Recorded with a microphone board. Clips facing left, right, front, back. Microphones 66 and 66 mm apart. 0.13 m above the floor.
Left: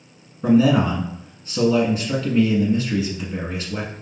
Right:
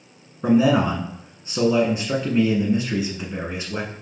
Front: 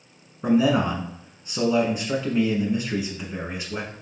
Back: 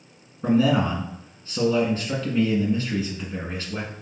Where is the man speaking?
60° right, 1.6 m.